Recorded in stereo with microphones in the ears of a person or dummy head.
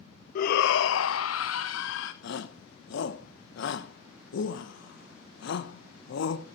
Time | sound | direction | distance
0.3 | a shout | 50° left (ahead or behind) | 0.6 m
2.2 | a shout | 70° left (ahead or behind) | 1.4 m